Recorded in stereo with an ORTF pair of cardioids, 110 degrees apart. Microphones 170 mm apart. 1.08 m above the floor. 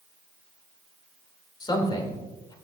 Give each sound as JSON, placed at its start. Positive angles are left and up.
{"t": 1.6, "sound": "a man speaking", "azimuth_deg": 25, "distance_m": 3.0}